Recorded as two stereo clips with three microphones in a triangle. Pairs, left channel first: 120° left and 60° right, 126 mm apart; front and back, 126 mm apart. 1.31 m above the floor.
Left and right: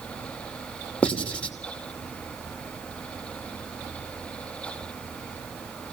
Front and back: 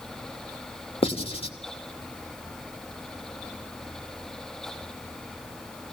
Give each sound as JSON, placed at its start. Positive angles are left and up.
{"t": 1.0, "sound": "writing", "azimuth_deg": 40, "distance_m": 2.5}